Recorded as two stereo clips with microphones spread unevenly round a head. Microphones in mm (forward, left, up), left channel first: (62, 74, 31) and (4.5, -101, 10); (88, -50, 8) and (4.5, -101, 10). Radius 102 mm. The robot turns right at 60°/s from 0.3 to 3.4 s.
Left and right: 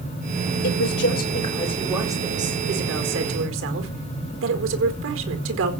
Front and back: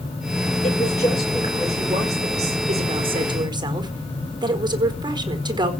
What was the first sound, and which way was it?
A woman speaking, 90° left.